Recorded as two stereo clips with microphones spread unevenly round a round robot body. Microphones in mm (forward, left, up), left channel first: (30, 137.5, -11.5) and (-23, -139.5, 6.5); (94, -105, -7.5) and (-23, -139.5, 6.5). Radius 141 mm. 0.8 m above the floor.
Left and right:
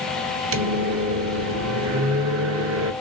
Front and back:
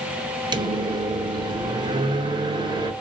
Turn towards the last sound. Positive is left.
turn(degrees=-120)